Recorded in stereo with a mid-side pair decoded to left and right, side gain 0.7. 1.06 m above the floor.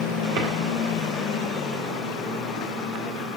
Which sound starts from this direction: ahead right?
A drawer, at 0.4 s.